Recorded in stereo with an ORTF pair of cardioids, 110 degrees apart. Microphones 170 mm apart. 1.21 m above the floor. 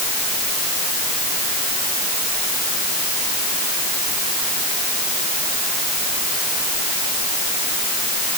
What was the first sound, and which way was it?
Only background noise.